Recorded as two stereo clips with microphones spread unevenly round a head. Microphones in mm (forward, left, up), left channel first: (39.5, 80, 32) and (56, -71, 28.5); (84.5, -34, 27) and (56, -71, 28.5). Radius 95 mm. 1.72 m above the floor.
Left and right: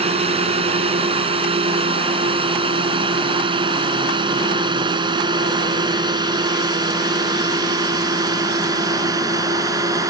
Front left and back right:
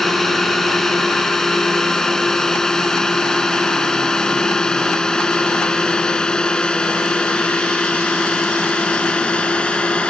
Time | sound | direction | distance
0.0 | a drone | 30° right | ?